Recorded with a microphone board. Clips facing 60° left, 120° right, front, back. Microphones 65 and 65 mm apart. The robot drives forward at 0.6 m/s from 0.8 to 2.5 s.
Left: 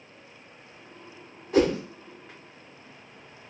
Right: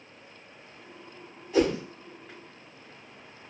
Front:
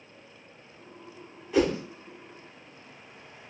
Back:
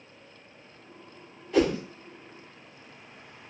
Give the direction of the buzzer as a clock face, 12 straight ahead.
No buzzer in this recording.